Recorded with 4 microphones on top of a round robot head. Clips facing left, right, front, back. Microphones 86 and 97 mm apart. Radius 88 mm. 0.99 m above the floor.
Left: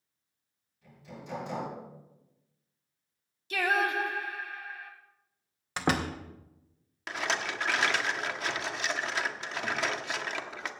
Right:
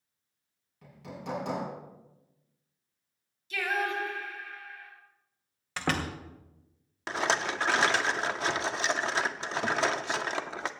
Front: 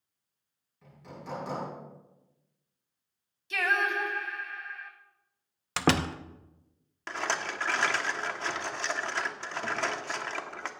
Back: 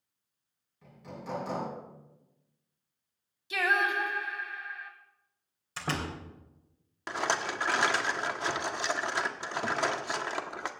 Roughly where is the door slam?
Ahead.